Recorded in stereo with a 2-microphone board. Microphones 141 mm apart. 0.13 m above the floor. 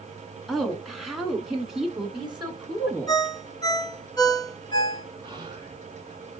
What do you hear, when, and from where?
0.5 s a woman speaking: centre (ahead or behind), 1.3 m; by 3.2 s 5° right (ahead or behind), 1.5 m
3.1 s a ringtone: 30° left (ahead or behind), 0.8 m
5.2 s whispering: 30° right (ahead or behind), 1.3 m